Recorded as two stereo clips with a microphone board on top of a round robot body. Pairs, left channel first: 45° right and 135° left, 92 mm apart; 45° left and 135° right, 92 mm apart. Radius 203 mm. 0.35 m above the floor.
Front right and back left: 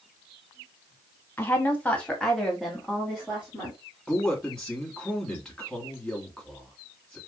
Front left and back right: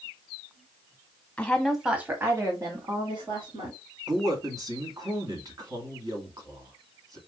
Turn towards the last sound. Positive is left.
turn(degrees=-125)